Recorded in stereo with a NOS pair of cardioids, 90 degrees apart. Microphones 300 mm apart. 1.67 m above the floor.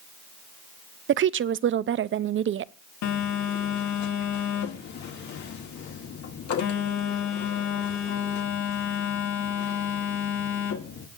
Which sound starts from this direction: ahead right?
A woman speaking, at 1.1 s.